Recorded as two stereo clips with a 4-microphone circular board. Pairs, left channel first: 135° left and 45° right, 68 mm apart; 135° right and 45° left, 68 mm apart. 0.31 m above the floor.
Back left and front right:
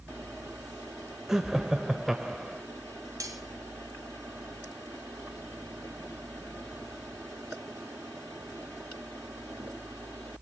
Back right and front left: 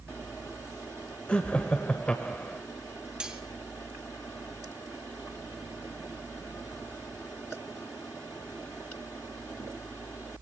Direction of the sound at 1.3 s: 115° right.